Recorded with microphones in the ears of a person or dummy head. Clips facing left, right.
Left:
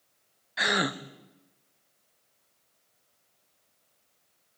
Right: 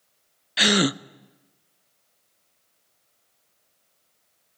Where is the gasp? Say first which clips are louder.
Right 8 dB; 40° right (ahead or behind), 0.5 m.